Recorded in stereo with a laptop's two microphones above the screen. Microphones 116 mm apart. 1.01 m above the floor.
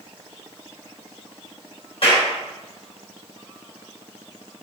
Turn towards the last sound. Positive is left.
turn(degrees=60)  # may be behind; listen again after turning